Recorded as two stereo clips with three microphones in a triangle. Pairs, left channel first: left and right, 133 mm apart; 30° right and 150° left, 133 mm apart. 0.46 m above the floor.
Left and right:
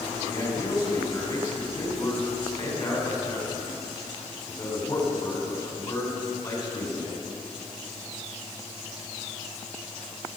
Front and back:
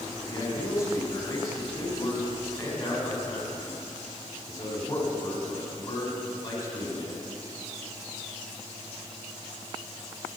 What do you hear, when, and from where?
0.3 s a man speaking: 35° left, 3.5 m